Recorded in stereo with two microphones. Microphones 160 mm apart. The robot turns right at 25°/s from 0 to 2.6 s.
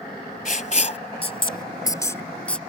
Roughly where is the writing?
Left.